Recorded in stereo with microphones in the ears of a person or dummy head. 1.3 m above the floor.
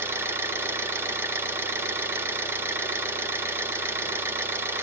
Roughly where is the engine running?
Centre.